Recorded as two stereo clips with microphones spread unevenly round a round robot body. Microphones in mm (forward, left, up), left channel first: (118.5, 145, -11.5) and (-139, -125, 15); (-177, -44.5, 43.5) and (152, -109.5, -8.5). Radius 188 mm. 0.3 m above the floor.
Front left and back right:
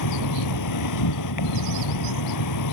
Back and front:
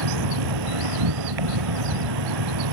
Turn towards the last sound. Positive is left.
turn(degrees=5)